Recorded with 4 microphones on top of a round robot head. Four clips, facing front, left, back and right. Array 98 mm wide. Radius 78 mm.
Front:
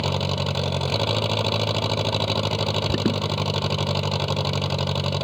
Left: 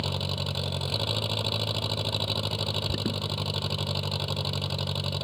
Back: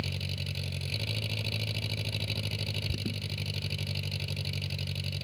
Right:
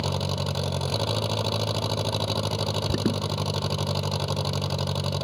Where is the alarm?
25° right.